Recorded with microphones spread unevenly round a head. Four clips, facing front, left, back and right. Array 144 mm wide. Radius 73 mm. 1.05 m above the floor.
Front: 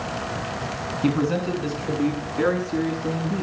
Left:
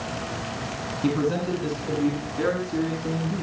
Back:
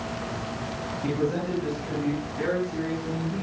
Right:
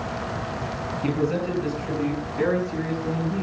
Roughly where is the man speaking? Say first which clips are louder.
Left 1 dB, front 5 dB; ahead.